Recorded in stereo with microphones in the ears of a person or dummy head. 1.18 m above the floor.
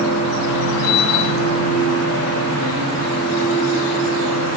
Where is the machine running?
70° left (ahead or behind), 2 m.